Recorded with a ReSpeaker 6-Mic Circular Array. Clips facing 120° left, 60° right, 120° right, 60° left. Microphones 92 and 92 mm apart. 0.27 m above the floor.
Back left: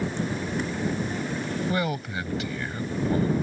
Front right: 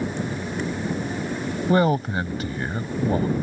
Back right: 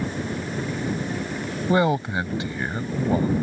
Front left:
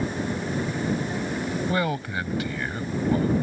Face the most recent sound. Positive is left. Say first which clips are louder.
# front right 12 dB, back right 10 dB
turn(degrees=-70)